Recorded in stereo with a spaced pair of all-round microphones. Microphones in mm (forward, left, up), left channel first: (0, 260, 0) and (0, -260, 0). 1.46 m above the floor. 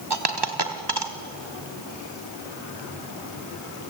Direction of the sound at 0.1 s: 50° right (ahead or behind).